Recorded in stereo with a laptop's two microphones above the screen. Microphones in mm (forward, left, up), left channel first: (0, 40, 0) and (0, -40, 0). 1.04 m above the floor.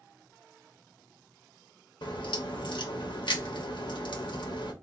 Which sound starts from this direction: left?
A crack, at 2.0 s.